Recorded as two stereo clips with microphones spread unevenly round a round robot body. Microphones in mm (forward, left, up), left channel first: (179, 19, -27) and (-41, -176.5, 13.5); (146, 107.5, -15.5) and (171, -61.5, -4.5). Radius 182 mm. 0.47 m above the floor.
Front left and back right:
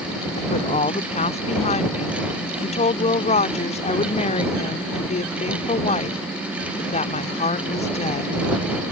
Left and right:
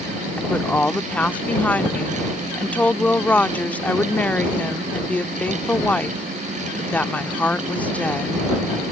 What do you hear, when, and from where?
0.4 s a woman speaking: 30° left